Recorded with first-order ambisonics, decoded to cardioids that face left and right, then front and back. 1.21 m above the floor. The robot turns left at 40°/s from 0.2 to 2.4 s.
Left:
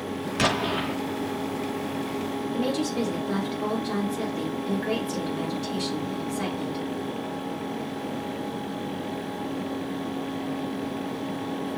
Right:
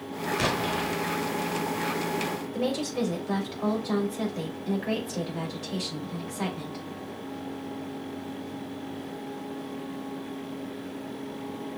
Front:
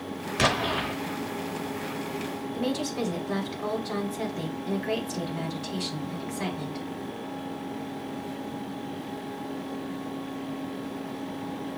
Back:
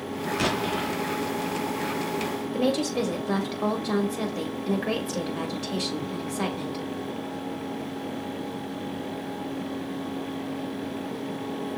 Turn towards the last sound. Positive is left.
turn(degrees=165)